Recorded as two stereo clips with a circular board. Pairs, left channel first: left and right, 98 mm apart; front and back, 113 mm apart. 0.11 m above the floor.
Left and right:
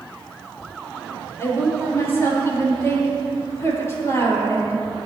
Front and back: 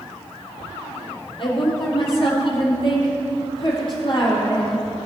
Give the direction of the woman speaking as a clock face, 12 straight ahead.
11 o'clock.